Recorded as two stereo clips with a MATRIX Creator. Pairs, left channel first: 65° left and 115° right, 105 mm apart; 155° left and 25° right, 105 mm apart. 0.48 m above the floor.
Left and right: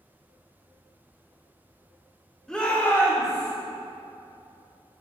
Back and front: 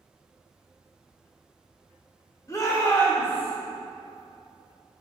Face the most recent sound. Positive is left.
turn(degrees=95)